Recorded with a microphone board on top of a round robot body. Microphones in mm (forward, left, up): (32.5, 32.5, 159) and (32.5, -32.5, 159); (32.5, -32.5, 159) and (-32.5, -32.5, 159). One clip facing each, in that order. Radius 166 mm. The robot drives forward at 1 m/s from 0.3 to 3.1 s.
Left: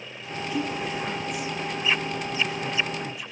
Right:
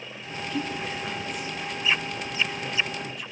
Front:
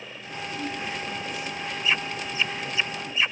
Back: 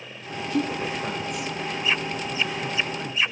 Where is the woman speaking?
170° left, 3 m; by 3.3 s 175° left, 5.5 m.